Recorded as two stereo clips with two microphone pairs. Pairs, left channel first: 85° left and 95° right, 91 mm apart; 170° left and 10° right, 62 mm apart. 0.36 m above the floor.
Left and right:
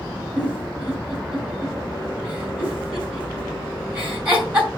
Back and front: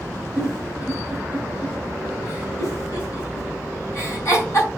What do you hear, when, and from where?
0.4 s a giggle: 165° right, 2.5 m